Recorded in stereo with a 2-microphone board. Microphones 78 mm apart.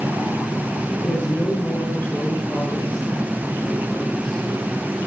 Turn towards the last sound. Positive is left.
turn(degrees=0)  # may be behind; listen again after turning